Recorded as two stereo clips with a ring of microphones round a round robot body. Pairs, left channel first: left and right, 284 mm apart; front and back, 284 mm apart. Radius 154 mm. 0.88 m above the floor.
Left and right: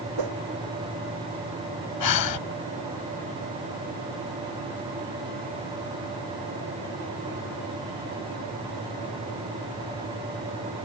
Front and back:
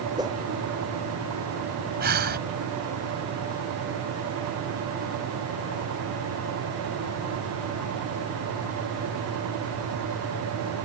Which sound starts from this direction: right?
A whoosh, at 0.2 s.